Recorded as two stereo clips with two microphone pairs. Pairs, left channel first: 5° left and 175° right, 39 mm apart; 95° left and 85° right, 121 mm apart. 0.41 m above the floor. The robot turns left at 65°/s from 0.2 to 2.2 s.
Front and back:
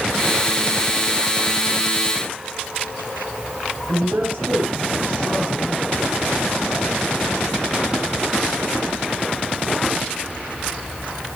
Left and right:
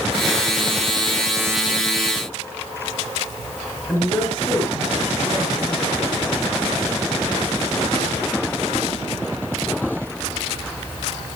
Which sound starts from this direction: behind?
A woman speaking, at 3.9 s.